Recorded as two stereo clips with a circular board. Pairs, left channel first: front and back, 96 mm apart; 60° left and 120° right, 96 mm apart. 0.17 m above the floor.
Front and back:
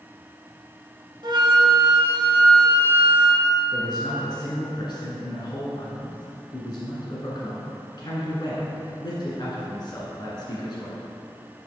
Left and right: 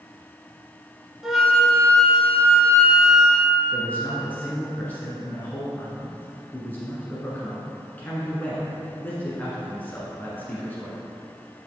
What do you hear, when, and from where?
1.2 s a flute: 155° left, 1.0 m
3.7 s a man speaking: 5° right, 1.6 m